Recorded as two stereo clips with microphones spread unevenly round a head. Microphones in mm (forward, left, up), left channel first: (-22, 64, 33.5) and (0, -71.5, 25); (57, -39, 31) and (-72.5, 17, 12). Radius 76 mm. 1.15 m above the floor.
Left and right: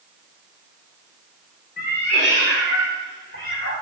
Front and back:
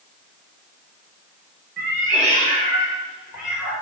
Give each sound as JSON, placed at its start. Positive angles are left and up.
{"t": 1.8, "sound": "a cat meowing", "azimuth_deg": 125, "distance_m": 2.5}